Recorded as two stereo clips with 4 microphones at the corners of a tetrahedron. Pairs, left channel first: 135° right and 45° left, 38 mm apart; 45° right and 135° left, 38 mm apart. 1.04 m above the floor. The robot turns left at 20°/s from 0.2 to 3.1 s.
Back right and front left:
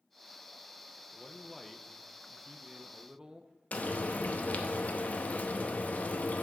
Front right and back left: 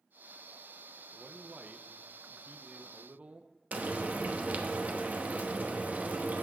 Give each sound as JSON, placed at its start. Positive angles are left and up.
{"t": 1.1, "sound": "a man speaking", "azimuth_deg": 150, "distance_m": 0.7}
{"t": 3.7, "sound": "frying", "azimuth_deg": 180, "distance_m": 0.9}